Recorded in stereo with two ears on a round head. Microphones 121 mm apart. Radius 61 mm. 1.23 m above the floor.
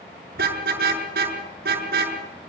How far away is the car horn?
About 7 m.